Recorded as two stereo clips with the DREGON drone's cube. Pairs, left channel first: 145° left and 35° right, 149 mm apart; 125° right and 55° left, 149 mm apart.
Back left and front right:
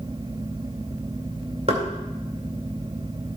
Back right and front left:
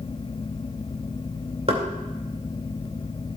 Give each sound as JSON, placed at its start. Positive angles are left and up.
{"t": 1.7, "sound": "knocking", "azimuth_deg": 10, "distance_m": 2.0}